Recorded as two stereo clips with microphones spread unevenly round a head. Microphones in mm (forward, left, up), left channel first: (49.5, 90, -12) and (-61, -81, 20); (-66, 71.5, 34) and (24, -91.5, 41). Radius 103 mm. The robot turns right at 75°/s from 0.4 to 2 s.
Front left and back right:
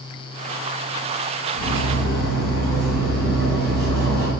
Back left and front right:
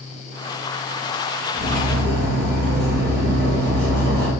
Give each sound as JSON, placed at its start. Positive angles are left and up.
{"t": 1.5, "sound": "cutlery clinking", "azimuth_deg": -130, "distance_m": 1.4}